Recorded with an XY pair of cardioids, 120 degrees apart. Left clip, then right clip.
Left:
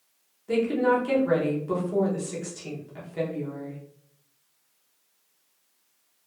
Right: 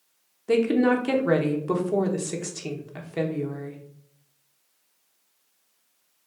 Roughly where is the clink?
No clink in this recording.